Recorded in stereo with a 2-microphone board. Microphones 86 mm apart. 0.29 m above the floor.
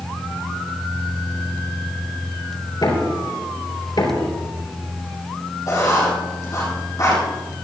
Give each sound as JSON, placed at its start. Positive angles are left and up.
{"t": 2.8, "sound": "knocking", "side_deg": 65, "distance_m": 4.5}
{"t": 5.7, "sound": "writing", "side_deg": 45, "distance_m": 5.5}